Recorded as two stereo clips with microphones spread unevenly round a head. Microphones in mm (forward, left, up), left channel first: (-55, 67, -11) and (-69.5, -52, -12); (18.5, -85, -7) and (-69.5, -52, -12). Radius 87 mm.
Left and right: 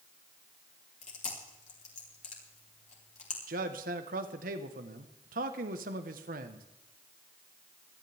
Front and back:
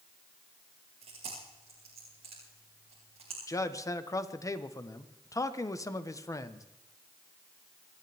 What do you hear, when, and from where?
1.0 s chewing: 105° left, 4 m
3.5 s a man speaking: 75° right, 1.2 m